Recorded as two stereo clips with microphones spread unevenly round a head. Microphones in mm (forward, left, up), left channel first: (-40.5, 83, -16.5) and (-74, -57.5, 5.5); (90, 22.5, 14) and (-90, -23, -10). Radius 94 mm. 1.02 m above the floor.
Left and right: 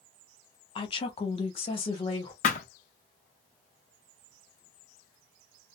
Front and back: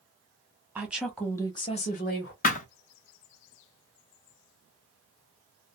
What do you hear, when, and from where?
0.8 s a woman speaking: 120° left, 1.0 m; by 2.3 s 30° left, 0.8 m
2.4 s a thud: 40° left, 0.5 m